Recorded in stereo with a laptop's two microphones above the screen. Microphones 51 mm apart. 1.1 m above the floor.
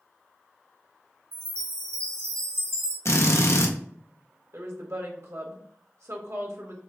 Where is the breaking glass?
I don't hear breaking glass.